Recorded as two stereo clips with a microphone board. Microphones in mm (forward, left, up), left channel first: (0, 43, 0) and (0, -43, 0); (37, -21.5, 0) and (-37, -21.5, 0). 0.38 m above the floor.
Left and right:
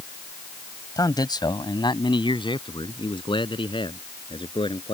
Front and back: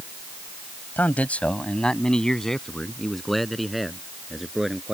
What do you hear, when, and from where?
1.0 s a man speaking: 60° left; by 5.0 s 95° left